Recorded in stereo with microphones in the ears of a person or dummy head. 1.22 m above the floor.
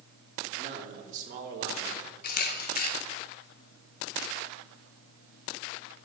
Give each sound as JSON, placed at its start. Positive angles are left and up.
{"t": 0.6, "sound": "a man speaking", "side_deg": -35, "distance_m": 2.5}
{"t": 2.2, "sound": "a camera shutter", "side_deg": 50, "distance_m": 0.6}